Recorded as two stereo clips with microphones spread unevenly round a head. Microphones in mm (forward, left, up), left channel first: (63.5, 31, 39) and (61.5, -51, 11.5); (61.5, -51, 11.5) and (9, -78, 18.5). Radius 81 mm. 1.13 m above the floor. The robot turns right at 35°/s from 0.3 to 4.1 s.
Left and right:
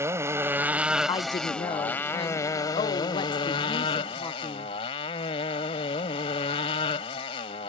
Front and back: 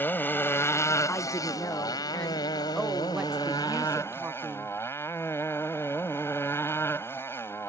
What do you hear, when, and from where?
0.0 s a motorcycle: 30° right; by 7.7 s 105° left
1.1 s a woman speaking: 45° left; by 4.7 s 150° left